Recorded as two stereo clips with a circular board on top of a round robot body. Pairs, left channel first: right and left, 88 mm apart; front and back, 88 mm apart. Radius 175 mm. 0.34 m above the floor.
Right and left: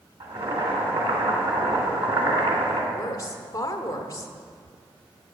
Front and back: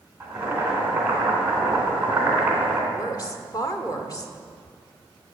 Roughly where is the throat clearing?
I don't hear throat clearing.